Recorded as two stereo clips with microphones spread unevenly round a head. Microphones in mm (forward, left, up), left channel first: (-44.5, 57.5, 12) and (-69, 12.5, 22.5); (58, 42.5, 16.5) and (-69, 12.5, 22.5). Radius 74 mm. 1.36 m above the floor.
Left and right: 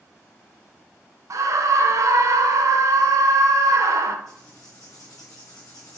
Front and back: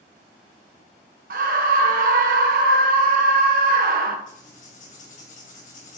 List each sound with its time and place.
1.3 s a scream: 140° right, 1.0 m
4.3 s writing: 35° left, 3 m